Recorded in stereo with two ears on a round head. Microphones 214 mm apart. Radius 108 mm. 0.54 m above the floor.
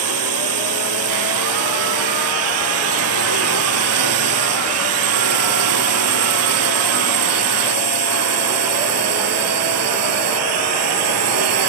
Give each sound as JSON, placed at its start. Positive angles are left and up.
{"t": 0.0, "sound": "a drone", "side_deg": -70}